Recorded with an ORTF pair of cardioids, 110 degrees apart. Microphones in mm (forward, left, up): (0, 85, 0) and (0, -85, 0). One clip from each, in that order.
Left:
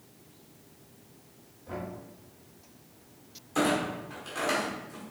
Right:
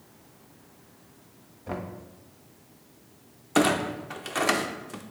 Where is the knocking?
60° right, 1.3 m.